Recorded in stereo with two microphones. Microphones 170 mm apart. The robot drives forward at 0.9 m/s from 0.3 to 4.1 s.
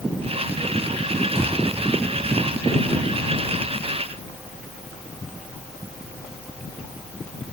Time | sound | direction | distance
1.4 | a thud | 35° right (ahead or behind) | 5 m